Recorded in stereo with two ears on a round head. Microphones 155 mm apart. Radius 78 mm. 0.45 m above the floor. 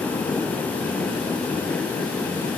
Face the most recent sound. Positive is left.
No sound to turn to.